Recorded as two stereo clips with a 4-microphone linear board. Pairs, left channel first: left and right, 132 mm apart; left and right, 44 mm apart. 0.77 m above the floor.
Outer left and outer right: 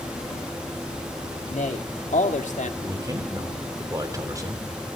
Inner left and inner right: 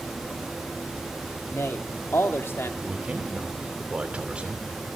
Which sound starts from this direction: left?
A man speaking, at 1.5 s.